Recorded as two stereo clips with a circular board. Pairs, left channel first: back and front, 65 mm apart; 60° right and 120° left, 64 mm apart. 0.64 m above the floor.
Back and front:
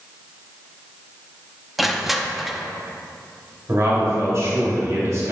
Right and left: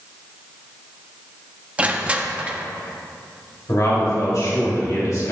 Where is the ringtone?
I don't hear a ringtone.